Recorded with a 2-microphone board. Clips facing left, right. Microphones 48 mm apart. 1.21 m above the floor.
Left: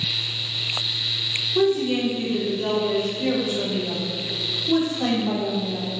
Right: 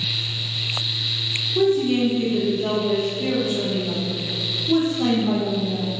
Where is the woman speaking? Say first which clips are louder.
Right 2 dB; 40° left (ahead or behind), 4 m.